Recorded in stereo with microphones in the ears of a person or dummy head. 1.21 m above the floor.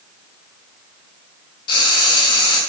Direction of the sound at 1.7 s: 30° left (ahead or behind).